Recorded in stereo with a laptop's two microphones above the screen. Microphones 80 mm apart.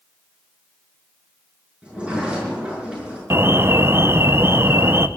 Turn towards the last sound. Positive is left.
turn(degrees=-30)  # may be behind; listen again after turning